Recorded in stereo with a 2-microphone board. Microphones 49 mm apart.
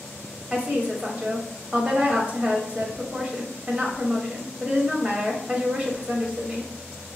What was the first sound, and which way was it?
A woman speaking, 25° right (ahead or behind).